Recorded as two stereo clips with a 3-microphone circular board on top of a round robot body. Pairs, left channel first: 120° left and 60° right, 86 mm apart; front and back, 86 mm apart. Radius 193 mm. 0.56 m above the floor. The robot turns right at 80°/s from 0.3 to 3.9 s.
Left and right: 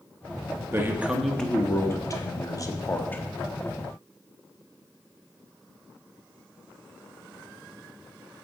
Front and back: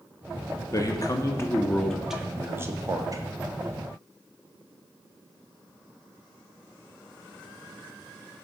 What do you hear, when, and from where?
0.7 s a man speaking: 15° right, 1.1 m; by 3.2 s 175° right, 1.1 m